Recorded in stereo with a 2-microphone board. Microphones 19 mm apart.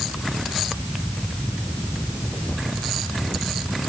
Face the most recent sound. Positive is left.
No sound to turn to.